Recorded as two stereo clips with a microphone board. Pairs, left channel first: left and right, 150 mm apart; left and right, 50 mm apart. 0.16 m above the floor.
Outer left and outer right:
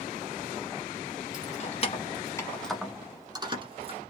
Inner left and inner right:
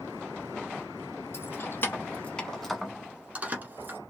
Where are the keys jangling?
55° left (ahead or behind), 1.4 m; by 4.0 s 45° right (ahead or behind), 1.5 m.